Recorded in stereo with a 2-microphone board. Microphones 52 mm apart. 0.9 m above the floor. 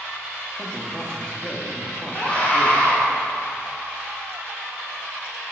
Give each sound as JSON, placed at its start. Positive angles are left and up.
{"t": 0.6, "sound": "a man speaking", "side_deg": 20, "distance_m": 1.3}
{"t": 2.1, "sound": "a scream", "side_deg": 35, "distance_m": 3.0}